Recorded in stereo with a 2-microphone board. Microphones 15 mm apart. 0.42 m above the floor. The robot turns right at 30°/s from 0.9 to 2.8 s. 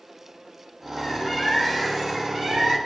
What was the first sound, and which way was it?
A bird, 170° left.